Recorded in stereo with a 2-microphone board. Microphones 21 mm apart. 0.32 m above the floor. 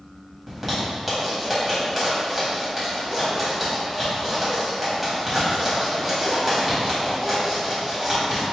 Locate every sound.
0.5 s a zipper: 10° right (ahead or behind), 1.6 m